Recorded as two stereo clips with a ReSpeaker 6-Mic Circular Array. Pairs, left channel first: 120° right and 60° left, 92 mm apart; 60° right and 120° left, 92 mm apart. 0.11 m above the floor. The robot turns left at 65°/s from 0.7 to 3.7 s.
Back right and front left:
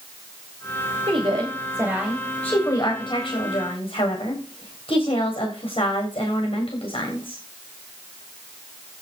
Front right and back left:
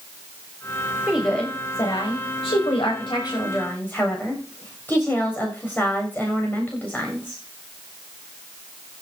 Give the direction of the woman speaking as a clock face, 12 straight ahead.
11 o'clock.